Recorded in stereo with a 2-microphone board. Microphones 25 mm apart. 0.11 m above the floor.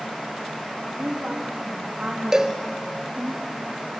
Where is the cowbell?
25° right (ahead or behind), 1.1 m.